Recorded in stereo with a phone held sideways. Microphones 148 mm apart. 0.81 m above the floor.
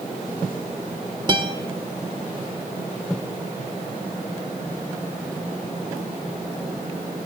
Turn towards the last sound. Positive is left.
turn(degrees=-30)  # may be behind; listen again after turning